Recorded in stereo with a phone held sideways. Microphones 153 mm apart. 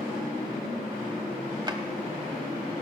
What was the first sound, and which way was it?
A drawer, 30° right (ahead or behind).